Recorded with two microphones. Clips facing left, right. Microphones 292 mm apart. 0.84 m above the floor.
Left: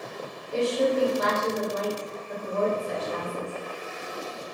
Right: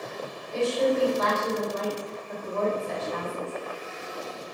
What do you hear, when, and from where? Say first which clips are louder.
0.5 s a woman speaking: even; 40° left (ahead or behind), 1.5 m